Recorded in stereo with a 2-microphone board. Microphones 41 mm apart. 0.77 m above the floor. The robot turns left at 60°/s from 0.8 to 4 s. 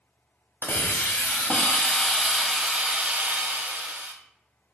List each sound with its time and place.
0.6 s a hiss: 95° left, 0.8 m; by 4.1 s 95° right, 0.8 m